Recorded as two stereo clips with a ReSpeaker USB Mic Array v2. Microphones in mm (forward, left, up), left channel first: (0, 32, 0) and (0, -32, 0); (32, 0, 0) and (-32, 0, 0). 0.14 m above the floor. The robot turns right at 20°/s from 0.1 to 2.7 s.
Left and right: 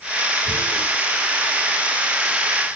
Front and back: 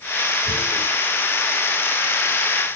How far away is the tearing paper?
About 2 m.